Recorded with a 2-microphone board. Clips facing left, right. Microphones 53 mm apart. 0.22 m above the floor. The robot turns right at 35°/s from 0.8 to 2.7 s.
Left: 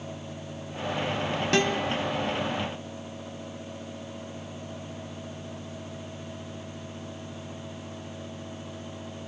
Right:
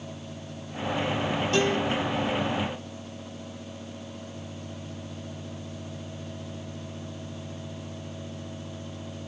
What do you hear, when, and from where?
1.5 s a guitar: 75° left (ahead or behind), 0.9 m; by 2.0 s 65° left (ahead or behind), 0.9 m